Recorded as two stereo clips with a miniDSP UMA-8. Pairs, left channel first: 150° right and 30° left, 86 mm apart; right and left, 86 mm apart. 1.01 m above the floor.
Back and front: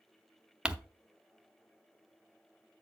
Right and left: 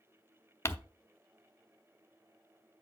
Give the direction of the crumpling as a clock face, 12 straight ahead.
1 o'clock.